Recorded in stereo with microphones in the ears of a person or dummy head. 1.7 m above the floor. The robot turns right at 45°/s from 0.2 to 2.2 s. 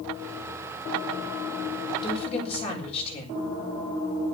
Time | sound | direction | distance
2.0 | a woman speaking | 20° left (ahead or behind) | 7.5 m